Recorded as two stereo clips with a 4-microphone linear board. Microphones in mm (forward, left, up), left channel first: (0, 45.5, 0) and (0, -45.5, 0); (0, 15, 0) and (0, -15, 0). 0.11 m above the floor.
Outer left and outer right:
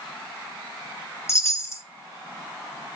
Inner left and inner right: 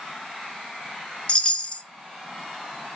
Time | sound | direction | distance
1.3 | a chime | 30° left (ahead or behind) | 1.4 m